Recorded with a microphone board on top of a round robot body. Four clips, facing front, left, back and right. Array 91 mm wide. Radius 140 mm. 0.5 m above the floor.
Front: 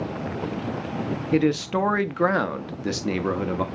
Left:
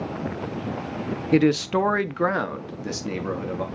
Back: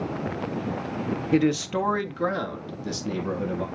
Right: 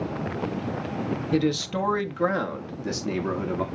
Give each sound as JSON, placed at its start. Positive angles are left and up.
{"t": 1.3, "sound": "a man speaking", "azimuth_deg": 90, "distance_m": 0.9}